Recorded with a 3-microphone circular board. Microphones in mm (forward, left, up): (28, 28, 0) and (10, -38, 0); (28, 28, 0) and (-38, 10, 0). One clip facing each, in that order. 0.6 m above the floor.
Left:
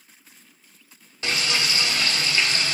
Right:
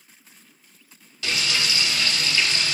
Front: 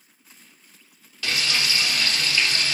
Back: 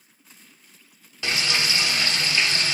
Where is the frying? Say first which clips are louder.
Left 1 dB, back 1 dB; 125° left, 0.6 m.